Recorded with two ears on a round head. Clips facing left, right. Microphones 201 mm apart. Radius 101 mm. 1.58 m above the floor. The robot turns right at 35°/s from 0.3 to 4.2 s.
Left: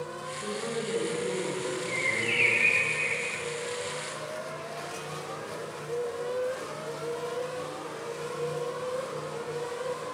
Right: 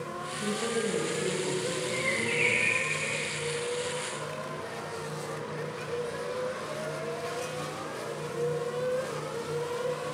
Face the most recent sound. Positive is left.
turn(degrees=125)